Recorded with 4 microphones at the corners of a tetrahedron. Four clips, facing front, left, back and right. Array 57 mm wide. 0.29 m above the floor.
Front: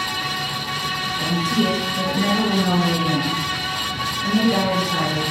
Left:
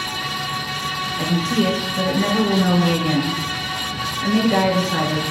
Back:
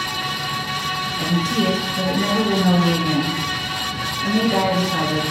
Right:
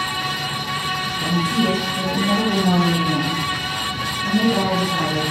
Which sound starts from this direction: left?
A woman speaking, at 1.2 s.